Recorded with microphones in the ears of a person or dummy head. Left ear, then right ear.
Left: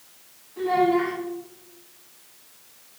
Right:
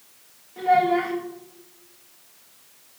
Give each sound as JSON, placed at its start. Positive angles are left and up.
{"t": 0.6, "sound": "a child speaking", "side_deg": -70, "distance_m": 2.5}